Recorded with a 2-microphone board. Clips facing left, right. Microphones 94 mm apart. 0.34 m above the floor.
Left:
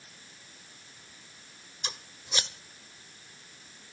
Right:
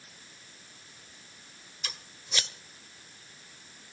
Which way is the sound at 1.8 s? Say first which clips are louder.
Left 3 dB; 25° left (ahead or behind).